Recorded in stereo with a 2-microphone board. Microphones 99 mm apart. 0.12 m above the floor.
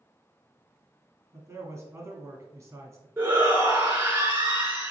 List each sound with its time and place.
1.3 s a man speaking: 30° right (ahead or behind), 1.2 m
3.2 s a shout: 20° right (ahead or behind), 1.6 m